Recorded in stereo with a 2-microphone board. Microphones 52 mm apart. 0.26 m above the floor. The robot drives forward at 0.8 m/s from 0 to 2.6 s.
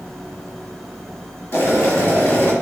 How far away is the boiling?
About 1.2 m.